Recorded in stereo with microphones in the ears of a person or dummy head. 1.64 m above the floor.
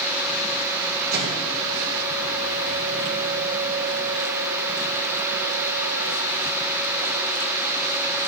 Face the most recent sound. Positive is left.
turn(degrees=-60)  # may be behind; listen again after turning